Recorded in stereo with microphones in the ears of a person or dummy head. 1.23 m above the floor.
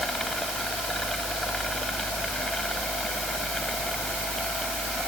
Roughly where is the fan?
Centre.